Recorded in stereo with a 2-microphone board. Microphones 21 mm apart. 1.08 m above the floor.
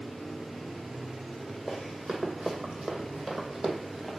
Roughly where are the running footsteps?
Right.